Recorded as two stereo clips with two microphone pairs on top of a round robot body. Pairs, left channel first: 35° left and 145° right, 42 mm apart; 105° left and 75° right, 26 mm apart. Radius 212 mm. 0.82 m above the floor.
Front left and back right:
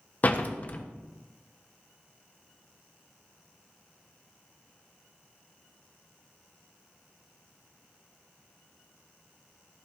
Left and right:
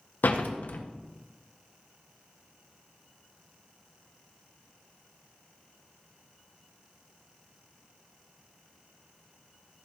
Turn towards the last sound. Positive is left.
turn(degrees=90)